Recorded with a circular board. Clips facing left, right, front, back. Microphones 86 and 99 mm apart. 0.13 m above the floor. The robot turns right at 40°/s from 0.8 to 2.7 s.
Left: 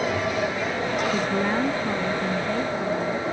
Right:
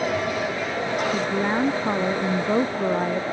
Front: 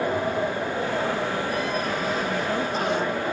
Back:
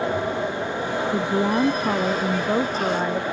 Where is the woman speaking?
Straight behind; by 3.2 s 115° right.